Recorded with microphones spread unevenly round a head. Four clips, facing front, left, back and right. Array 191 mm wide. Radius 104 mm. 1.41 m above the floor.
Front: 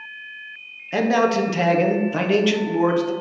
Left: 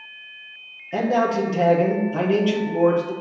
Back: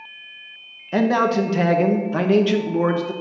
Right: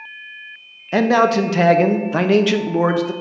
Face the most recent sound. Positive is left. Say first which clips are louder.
# right 5 dB, even
turn(degrees=-85)